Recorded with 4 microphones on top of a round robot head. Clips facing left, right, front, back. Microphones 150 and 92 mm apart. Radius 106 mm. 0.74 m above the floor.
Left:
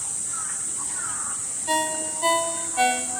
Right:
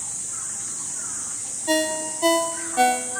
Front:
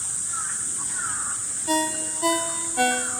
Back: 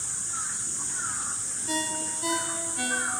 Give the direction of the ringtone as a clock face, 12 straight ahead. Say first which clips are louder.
Right 4 dB, front 7 dB; 1 o'clock.